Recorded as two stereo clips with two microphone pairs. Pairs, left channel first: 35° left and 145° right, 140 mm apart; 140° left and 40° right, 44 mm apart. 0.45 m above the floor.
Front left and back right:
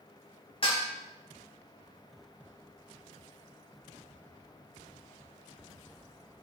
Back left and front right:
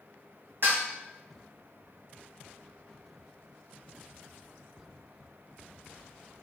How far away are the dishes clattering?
About 2 m.